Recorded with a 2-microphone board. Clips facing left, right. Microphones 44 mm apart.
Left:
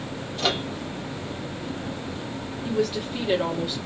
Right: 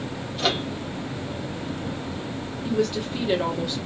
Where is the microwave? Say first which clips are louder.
Right 1 dB; 5° right (ahead or behind), 0.8 m.